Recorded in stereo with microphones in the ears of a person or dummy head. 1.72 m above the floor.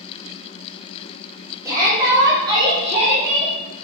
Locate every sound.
1.6 s a shout: 20° right (ahead or behind), 2 m; by 3.5 s 35° right (ahead or behind), 3.5 m